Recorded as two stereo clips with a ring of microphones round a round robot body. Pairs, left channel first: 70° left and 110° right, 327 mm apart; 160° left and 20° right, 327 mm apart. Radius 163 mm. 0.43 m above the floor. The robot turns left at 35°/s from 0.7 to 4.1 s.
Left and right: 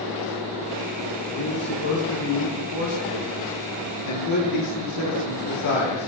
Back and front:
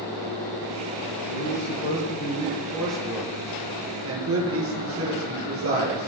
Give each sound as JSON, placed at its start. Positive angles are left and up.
{"t": 1.3, "sound": "a man speaking", "azimuth_deg": 125, "distance_m": 9.5}